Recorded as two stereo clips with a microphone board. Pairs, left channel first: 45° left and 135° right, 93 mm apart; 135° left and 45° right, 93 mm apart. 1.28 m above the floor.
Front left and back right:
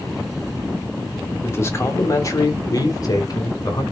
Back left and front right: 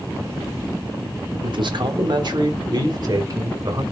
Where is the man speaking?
20° right, 3 m; by 3.8 s straight ahead, 5 m.